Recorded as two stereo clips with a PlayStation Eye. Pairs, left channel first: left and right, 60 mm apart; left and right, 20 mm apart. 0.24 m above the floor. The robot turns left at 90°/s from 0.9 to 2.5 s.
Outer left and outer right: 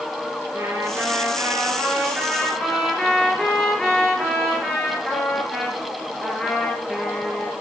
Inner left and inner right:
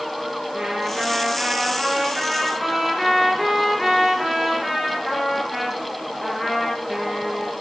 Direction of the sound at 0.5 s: 45° right.